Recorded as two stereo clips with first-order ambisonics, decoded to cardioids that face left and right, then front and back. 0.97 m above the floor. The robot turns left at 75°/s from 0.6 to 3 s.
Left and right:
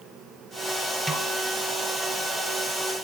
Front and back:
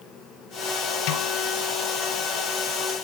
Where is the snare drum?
Straight ahead, 2.5 m; by 1.3 s 20° right, 2.5 m.